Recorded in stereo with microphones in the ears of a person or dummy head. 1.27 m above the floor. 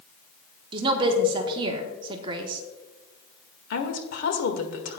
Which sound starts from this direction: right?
A woman speaking, at 0.7 s.